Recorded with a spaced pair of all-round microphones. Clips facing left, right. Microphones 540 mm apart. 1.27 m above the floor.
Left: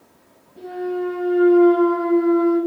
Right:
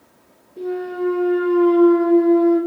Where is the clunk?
25° left (ahead or behind), 1.7 m.